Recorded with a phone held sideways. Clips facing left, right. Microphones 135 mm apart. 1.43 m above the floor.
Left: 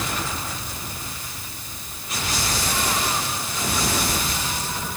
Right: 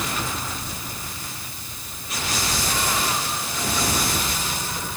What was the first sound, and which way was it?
Only background noise.